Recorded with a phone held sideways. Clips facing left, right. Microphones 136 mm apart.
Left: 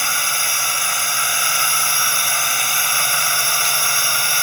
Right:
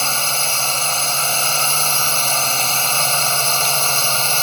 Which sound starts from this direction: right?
A drone, at 0.0 s.